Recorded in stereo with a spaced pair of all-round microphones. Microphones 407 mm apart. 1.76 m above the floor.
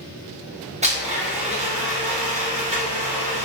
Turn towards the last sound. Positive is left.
turn(degrees=-15)  # may be behind; listen again after turning